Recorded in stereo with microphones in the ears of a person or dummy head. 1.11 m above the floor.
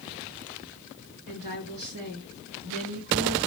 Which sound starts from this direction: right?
A woman speaking, at 1.3 s.